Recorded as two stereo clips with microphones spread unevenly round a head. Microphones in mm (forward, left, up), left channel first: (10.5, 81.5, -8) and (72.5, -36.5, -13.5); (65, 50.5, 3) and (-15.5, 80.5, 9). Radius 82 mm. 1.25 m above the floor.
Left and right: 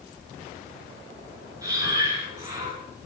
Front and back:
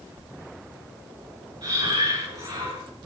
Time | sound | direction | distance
1.6 | breathing | 135° right | 4 m